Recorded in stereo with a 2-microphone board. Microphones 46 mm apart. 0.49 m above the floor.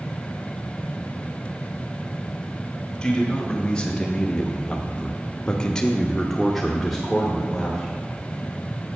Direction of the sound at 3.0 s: 20° left (ahead or behind).